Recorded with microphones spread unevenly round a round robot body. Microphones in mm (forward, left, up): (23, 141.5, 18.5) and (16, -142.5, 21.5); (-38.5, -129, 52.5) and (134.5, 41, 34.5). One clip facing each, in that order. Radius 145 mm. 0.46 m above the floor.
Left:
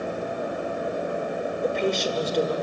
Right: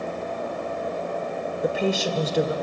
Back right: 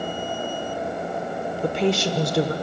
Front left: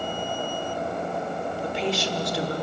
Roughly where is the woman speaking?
Behind.